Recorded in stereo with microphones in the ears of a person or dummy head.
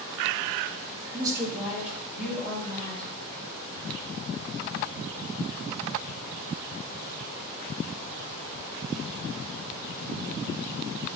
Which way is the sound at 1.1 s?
20° right (ahead or behind).